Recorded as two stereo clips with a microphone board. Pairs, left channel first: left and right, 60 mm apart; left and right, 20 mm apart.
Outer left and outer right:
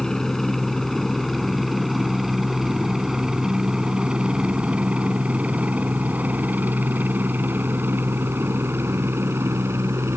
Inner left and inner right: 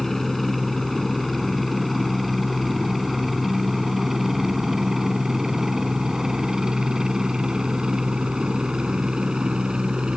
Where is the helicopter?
10° left (ahead or behind); by 10.2 s 50° right (ahead or behind).